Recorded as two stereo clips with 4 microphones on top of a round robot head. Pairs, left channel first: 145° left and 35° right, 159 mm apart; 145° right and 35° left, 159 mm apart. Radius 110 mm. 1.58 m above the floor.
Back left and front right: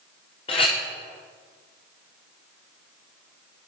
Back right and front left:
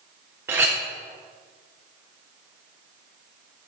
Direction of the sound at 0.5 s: 105° left.